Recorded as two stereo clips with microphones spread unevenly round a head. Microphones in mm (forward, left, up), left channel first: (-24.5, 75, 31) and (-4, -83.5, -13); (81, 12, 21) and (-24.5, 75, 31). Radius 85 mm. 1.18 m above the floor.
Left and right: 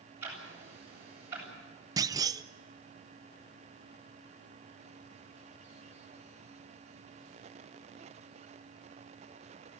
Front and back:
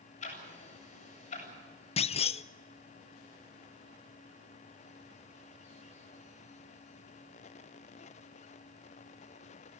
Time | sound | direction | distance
0.2 | ticking | 5° right | 8 m
2.0 | a clunk | 35° right | 0.5 m